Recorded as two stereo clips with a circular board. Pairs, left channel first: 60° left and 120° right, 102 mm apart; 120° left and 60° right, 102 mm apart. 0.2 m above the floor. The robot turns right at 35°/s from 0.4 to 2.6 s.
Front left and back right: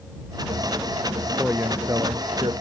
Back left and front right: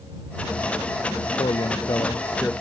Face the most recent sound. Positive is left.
turn(degrees=-160)